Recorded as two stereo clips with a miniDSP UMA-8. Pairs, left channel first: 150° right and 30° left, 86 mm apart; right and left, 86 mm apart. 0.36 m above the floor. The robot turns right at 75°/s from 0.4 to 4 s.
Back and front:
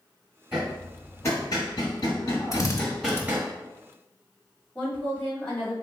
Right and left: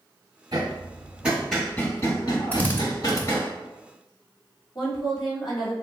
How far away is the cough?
I don't hear a cough.